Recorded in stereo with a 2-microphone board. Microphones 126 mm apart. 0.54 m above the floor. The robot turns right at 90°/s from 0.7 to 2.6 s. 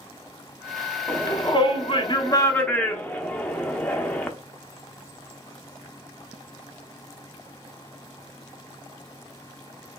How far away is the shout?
About 0.8 m.